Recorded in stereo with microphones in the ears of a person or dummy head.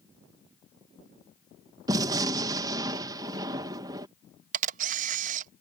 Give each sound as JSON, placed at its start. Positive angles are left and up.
{"t": 1.9, "sound": "a gunshot", "side_deg": -20}
{"t": 4.5, "sound": "a camera shutter", "side_deg": -50}